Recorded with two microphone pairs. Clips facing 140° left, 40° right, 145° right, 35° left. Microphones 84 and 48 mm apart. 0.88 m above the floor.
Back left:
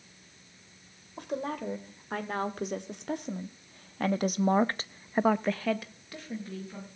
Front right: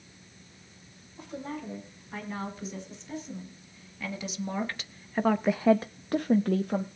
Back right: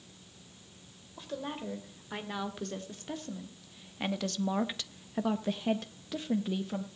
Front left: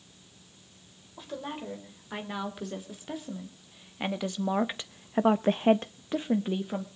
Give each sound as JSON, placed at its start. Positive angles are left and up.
{"t": 1.2, "sound": "a woman speaking", "azimuth_deg": 125, "distance_m": 3.0}